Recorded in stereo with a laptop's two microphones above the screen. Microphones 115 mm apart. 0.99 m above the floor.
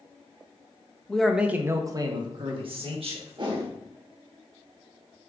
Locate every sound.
1.1 s a man speaking: 10° left (ahead or behind), 0.6 m; by 3.7 s 65° right (ahead or behind), 1.6 m
3.4 s a whoosh: 50° right (ahead or behind), 1.0 m